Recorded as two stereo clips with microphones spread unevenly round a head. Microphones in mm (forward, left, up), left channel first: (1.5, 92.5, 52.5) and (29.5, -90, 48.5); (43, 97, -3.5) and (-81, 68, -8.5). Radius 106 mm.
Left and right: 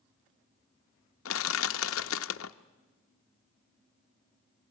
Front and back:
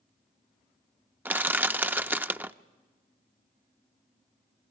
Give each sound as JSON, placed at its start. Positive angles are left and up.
{"t": 1.2, "sound": "crushing", "azimuth_deg": 115, "distance_m": 0.6}